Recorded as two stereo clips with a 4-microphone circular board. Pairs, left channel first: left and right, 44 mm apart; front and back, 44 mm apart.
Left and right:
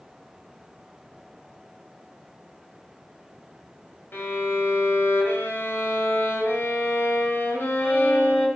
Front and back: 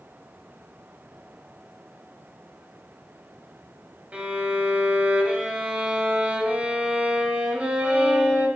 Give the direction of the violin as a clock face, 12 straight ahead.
8 o'clock.